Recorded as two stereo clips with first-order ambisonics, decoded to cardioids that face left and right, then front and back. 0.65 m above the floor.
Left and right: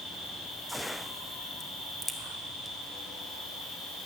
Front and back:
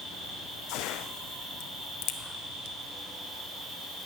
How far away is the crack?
About 0.9 m.